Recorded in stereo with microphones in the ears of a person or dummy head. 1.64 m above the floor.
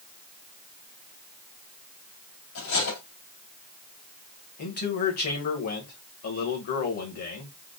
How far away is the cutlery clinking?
About 2.5 m.